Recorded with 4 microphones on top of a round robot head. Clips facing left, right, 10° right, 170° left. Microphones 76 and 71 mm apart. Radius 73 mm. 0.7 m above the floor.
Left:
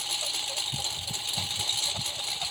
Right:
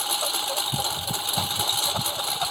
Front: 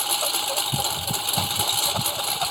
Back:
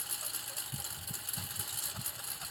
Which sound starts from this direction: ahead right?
A lawn mower, at 0.0 s.